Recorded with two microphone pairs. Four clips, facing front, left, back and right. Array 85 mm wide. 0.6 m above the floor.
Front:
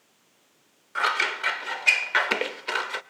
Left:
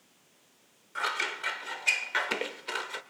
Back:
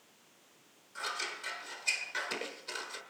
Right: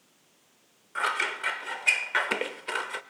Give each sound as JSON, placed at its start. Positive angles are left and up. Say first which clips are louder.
{"t": 0.9, "sound": "scissors", "louder": "right 4 dB, front 14 dB", "azimuth_deg": -15, "distance_m": 0.8}